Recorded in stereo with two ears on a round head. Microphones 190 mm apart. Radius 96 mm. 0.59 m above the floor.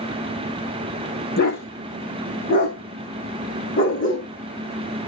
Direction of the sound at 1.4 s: 45° left (ahead or behind).